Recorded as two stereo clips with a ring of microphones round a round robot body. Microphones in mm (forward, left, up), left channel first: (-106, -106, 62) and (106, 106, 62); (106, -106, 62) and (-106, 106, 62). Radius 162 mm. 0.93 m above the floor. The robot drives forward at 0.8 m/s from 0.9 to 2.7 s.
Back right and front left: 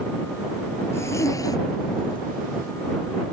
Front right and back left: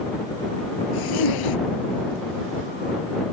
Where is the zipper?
55° right; by 2.2 s 60° right.